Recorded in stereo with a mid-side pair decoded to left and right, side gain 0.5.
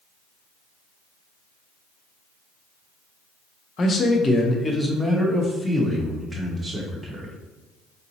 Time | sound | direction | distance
3.8 | a man speaking | 40° left | 1.0 m